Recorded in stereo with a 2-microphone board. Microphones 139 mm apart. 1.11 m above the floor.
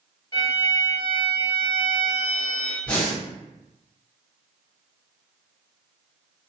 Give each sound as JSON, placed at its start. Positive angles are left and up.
{"t": 0.3, "sound": "a violin", "side_deg": 30, "distance_m": 1.7}
{"t": 2.9, "sound": "breathing", "side_deg": 10, "distance_m": 1.6}